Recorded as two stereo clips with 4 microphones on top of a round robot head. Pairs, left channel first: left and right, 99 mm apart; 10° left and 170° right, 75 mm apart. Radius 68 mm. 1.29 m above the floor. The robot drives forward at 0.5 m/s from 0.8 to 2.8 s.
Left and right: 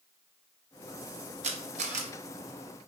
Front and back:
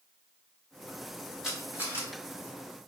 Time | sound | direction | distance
1.4 | a camera shutter | 85° right | 1.1 m